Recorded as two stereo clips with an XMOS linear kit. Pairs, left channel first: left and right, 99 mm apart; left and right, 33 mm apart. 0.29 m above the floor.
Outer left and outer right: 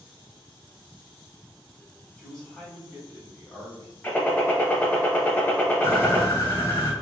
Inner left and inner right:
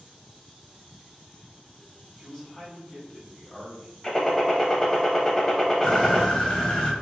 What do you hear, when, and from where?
2.2 s a man speaking: 5° left (ahead or behind), 1.7 m; by 3.9 s 30° left (ahead or behind), 1.4 m
4.0 s a gunshot: 20° left (ahead or behind), 0.6 m
5.8 s a bird: 25° left (ahead or behind), 1.0 m